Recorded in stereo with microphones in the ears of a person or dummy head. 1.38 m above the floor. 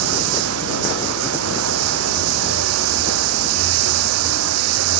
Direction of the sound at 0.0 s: 85° right.